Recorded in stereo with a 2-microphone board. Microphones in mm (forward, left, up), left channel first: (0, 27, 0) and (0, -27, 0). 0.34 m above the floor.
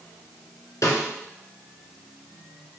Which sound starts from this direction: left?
A snare drum, at 0.8 s.